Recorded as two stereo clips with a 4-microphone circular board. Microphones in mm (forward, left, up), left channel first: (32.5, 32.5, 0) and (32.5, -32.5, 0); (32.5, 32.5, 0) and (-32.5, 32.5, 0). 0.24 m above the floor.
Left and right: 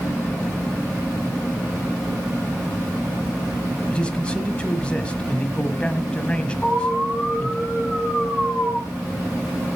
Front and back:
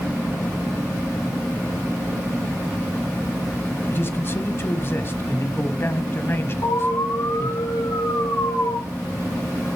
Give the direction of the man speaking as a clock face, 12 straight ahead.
11 o'clock.